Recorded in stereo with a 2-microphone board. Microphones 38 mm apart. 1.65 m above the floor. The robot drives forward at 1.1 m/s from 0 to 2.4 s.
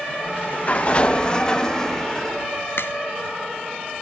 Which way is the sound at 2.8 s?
75° left (ahead or behind).